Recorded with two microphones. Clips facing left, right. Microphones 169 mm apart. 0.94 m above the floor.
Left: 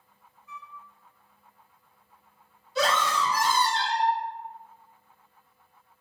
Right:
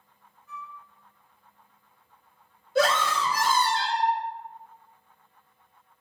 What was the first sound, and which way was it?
A flute, 60° right (ahead or behind).